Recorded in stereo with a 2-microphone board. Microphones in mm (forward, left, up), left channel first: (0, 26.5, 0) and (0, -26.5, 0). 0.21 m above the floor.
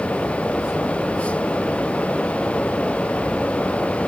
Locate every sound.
Only background noise.